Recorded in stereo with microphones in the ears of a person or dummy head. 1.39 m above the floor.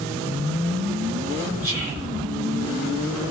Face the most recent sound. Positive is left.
turn(degrees=-10)  # may be behind; listen again after turning